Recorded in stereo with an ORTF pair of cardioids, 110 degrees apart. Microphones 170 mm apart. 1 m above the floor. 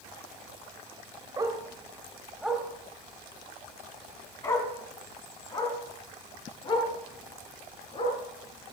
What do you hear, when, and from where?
1.4 s a dog barking: 25° right, 1.9 m; by 8.2 s 30° left, 6 m